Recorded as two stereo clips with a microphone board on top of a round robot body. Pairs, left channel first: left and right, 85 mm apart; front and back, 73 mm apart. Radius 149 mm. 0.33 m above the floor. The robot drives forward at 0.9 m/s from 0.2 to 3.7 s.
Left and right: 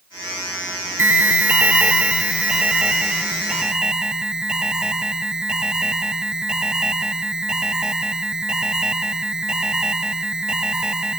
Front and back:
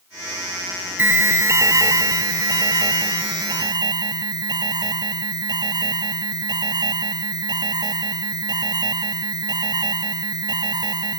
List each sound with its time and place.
1.0 s an alarm: 140° right; by 11.2 s 170° right